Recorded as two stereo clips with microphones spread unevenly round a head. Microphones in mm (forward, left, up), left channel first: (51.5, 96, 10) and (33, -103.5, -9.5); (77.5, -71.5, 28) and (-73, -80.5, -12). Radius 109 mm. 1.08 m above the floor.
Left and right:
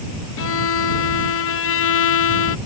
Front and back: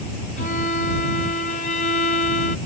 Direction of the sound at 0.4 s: 65° left.